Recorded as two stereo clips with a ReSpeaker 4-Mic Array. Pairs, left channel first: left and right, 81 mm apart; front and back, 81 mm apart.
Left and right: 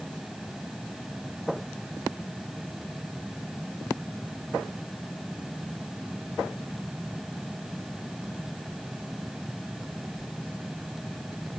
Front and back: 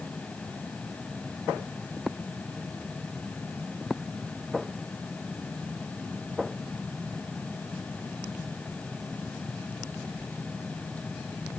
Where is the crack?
No crack in this recording.